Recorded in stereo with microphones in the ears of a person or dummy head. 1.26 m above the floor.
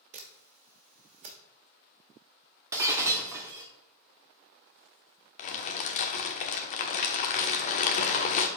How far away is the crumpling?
About 1.1 m.